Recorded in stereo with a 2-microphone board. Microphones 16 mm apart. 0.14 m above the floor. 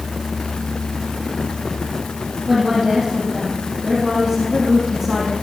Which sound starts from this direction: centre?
A woman speaking, at 2.5 s.